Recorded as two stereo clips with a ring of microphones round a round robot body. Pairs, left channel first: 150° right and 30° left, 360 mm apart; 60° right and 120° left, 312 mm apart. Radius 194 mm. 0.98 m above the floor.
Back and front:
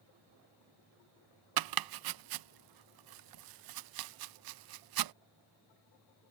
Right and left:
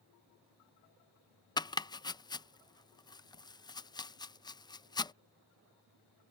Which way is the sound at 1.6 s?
15° left.